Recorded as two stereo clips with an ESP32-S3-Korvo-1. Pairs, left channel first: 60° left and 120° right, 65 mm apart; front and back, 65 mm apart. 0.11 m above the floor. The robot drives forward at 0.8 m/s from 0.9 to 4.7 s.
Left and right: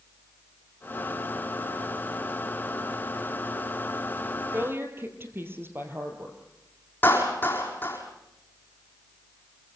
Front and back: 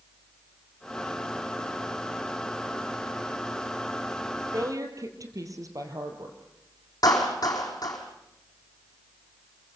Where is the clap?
Straight ahead, 4.5 m.